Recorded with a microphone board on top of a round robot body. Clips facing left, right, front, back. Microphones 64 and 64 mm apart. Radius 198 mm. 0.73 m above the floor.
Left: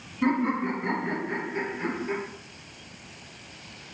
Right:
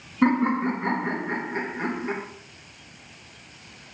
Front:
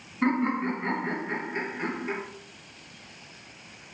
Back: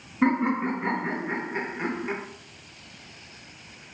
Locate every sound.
0.2 s laughter: 110° right, 1.6 m